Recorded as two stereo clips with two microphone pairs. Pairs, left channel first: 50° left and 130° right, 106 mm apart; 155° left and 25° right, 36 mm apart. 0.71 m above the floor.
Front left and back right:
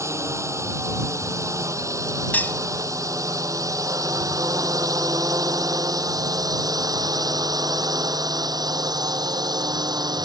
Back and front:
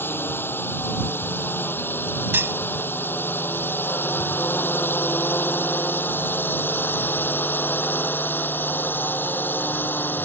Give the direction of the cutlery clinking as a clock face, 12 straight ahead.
1 o'clock.